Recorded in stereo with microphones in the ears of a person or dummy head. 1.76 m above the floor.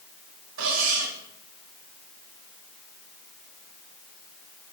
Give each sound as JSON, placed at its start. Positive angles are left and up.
{"t": 0.6, "sound": "cutlery clinking", "side_deg": -80, "distance_m": 5.5}